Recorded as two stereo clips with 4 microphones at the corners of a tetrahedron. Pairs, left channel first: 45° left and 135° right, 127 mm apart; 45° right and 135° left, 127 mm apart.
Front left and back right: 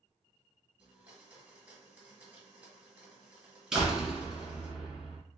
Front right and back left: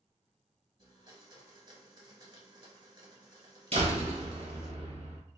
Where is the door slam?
140° left, 1.7 m.